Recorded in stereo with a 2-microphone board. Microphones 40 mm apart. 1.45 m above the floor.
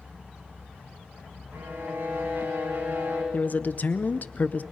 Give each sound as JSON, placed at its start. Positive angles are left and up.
{"t": 1.5, "sound": "a violin", "side_deg": -85, "distance_m": 7.0}
{"t": 3.3, "sound": "a man speaking", "side_deg": 45, "distance_m": 0.6}